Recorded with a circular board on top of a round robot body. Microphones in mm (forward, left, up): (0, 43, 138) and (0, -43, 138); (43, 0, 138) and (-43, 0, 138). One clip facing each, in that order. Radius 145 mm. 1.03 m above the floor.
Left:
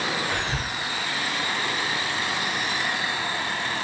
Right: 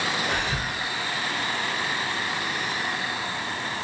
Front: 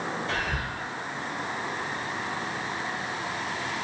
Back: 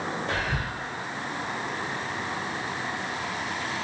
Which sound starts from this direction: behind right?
Whispering, at 0.3 s.